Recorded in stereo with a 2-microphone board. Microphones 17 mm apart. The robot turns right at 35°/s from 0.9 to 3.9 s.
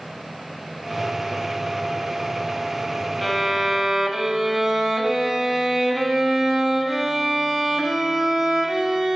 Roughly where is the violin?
Centre.